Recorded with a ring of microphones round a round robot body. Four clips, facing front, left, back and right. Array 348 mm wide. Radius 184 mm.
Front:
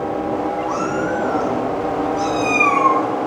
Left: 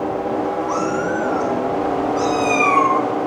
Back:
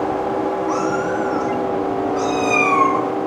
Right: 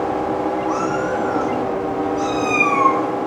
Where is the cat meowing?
135° left, 4 m; by 3.0 s 115° left, 3.5 m.